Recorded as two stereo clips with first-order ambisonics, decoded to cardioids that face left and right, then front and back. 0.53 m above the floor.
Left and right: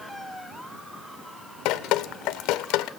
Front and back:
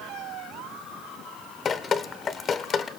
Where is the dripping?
65° left, 0.7 m.